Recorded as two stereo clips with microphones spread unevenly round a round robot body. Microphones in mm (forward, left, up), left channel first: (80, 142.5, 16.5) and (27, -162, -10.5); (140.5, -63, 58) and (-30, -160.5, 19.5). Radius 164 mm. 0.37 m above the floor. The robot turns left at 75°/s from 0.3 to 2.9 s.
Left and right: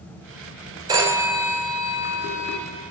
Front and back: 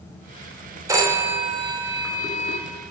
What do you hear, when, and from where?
0.9 s a phone ringing: 150° right, 0.8 m; by 2.6 s 80° left, 0.8 m